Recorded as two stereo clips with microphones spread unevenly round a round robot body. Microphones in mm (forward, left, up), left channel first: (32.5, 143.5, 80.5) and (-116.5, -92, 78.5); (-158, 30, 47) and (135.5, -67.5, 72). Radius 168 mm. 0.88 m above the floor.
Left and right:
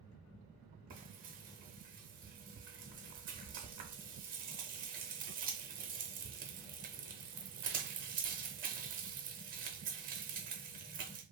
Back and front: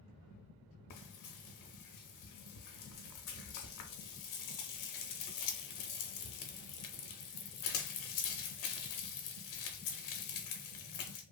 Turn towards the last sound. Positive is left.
turn(degrees=180)